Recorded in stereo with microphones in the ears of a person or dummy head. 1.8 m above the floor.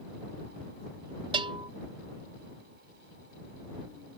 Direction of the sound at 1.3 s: 30° right (ahead or behind).